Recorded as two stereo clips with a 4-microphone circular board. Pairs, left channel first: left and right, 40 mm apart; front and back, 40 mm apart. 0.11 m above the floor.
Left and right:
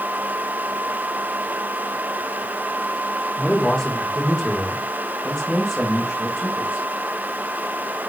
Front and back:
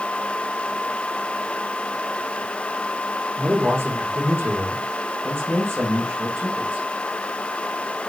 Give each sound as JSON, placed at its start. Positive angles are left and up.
{"t": 3.4, "sound": "a man speaking", "azimuth_deg": 170, "distance_m": 4.5}